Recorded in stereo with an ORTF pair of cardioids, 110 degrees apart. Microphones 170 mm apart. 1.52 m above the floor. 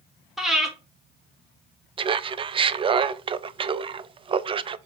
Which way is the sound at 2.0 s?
30° right.